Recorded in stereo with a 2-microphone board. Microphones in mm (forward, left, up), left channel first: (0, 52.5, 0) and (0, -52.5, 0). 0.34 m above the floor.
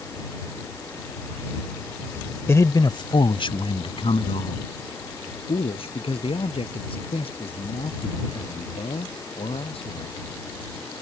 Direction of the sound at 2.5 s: 25° left (ahead or behind).